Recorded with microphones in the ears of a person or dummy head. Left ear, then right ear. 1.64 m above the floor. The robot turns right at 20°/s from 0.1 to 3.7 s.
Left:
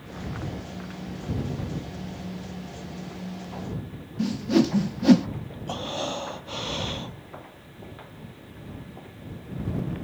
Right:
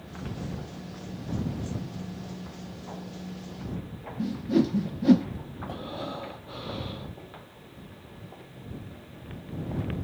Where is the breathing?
45° left (ahead or behind).